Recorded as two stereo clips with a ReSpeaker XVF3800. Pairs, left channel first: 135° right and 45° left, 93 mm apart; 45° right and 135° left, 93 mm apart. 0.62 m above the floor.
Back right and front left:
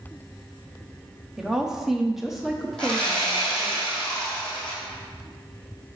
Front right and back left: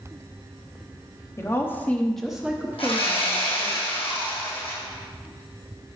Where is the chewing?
I don't hear chewing.